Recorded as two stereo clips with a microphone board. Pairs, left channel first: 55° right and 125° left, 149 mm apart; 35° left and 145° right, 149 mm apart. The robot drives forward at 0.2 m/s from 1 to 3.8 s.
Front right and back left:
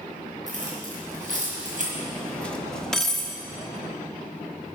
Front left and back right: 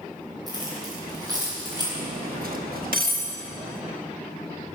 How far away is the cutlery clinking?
About 0.9 m.